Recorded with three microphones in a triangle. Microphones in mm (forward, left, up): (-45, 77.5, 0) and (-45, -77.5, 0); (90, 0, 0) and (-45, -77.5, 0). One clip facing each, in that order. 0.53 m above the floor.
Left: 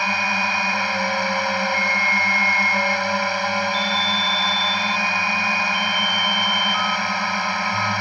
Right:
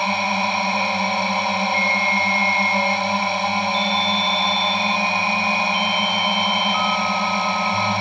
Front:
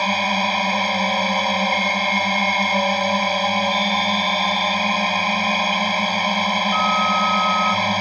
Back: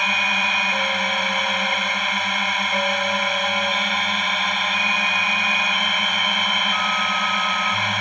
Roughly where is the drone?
Ahead right.